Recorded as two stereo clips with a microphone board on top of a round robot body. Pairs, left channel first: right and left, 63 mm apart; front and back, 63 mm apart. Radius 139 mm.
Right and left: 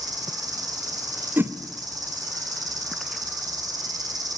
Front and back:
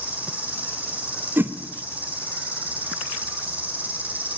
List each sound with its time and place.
0.0 s an insect: 115° left, 2.5 m
1.4 s a whoosh: 135° left, 1.5 m